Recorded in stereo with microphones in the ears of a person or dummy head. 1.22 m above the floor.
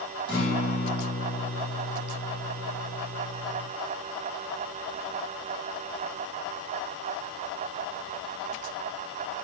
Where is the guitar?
30° left (ahead or behind), 2.5 m.